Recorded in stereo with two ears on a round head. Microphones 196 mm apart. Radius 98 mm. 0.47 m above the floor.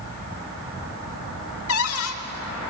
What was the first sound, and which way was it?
A cupboard door, 70° left (ahead or behind).